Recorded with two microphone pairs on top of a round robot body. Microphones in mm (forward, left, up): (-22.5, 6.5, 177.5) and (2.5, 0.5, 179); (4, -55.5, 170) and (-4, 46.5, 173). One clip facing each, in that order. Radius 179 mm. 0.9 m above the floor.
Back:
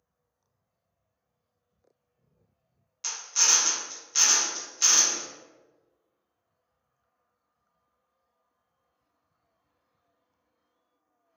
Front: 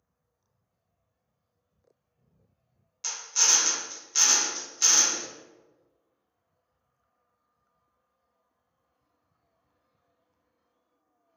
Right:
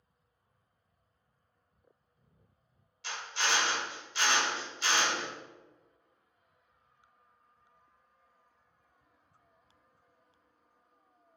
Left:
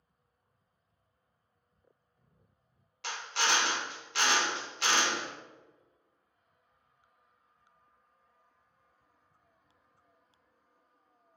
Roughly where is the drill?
Left.